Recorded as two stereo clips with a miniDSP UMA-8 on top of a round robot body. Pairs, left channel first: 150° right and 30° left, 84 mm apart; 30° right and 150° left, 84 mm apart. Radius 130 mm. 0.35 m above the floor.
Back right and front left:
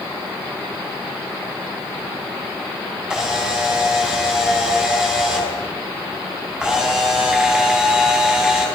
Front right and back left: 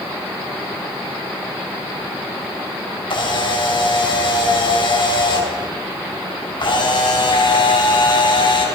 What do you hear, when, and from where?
3.1 s a camera shutter: 50° right, 5 m